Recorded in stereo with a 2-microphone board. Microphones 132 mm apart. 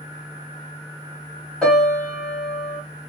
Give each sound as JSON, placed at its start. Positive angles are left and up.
{"t": 1.6, "sound": "a piano", "side_deg": 5, "distance_m": 1.6}